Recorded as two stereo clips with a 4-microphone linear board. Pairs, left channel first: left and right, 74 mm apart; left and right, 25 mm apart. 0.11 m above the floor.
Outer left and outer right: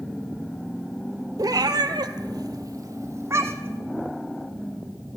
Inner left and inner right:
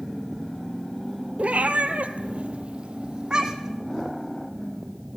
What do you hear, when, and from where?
1.4 s a cat meowing: 60° right (ahead or behind), 0.7 m; by 3.8 s 30° right (ahead or behind), 1.2 m